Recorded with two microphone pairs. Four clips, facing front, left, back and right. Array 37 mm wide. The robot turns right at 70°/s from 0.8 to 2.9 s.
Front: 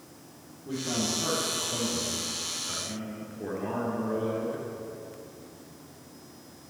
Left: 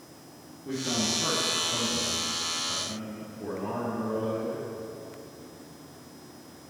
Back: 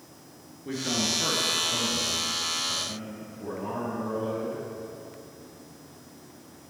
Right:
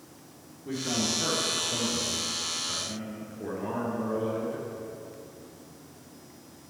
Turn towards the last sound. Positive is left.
turn(degrees=-25)